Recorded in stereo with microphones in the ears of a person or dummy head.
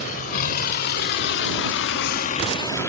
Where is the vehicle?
50° left (ahead or behind); by 2.9 s 15° left (ahead or behind).